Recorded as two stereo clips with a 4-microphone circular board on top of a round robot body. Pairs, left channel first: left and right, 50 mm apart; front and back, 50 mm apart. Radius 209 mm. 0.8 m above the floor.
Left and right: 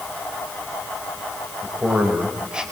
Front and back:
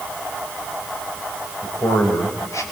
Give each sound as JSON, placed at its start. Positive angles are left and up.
{"t": 1.6, "sound": "a man speaking", "azimuth_deg": -30, "distance_m": 4.0}